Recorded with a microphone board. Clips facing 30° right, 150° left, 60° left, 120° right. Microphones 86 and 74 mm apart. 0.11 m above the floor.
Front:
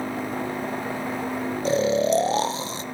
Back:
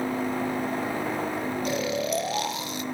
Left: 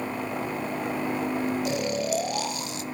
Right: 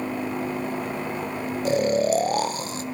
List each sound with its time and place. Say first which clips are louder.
1.6 s snoring: front 10 dB, right 6 dB; 80° right, 0.7 m